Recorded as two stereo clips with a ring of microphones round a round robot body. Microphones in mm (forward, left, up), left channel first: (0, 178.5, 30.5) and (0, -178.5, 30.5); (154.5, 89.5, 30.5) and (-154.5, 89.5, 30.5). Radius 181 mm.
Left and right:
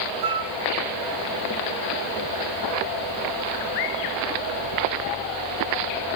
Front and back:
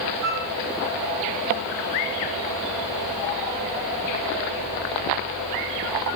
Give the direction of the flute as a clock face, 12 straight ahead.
4 o'clock.